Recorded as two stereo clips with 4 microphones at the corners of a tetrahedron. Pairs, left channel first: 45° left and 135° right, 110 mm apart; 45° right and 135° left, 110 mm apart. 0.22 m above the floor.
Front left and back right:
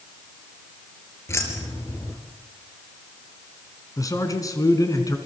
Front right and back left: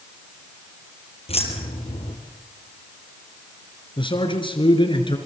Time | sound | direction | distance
1.3 | keys jangling | 20° right | 4 m
4.0 | a man speaking | 10° right | 3.5 m